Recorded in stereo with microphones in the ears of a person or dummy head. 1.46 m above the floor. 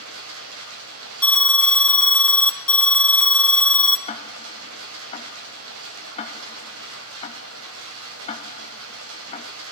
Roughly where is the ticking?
Left.